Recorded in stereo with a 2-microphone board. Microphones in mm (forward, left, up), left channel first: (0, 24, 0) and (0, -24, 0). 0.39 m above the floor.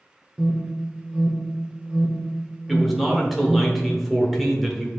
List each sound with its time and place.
0.4 s an alarm: 20° right (ahead or behind), 0.7 m
2.7 s a man speaking: centre (ahead or behind), 0.9 m